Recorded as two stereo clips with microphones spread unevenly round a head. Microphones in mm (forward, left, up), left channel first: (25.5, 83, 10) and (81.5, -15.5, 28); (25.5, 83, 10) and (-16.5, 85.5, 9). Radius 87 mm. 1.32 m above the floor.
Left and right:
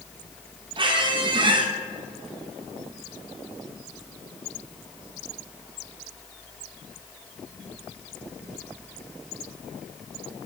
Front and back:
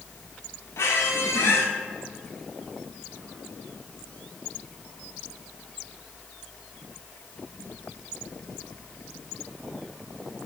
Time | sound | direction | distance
0.8 | a squeak | 20° right | 1.0 m